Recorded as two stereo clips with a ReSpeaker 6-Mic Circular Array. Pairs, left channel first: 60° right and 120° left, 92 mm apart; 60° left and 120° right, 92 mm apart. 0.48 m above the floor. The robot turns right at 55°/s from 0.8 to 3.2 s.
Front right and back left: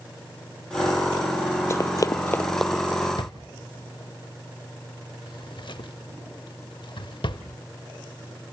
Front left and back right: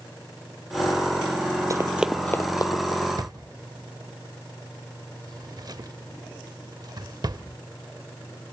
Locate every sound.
1.7 s running footsteps: 100° right, 0.6 m; by 3.1 s 60° left, 1.2 m
3.2 s a drawer: 85° right, 0.7 m